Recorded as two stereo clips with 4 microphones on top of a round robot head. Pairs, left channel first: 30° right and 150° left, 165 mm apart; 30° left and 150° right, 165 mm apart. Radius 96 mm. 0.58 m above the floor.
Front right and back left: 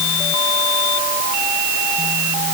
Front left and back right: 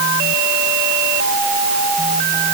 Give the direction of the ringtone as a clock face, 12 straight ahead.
I don't hear a ringtone.